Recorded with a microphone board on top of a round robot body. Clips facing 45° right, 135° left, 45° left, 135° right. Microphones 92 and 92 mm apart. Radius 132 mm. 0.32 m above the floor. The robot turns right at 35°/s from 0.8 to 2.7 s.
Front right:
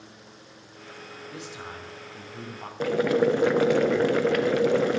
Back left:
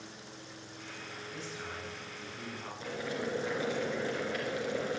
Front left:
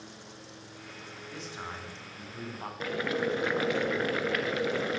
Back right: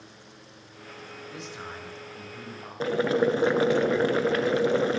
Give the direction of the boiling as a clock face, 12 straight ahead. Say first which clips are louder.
Front right 16 dB, back right 8 dB; 2 o'clock.